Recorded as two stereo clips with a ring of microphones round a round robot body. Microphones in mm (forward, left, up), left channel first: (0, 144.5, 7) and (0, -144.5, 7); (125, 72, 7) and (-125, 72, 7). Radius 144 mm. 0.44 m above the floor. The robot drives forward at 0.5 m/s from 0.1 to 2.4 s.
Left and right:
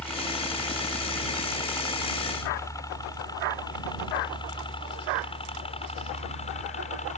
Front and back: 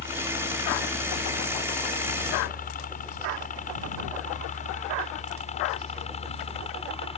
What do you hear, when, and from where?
0.0 s a helicopter: 5° left; by 7.2 s 45° left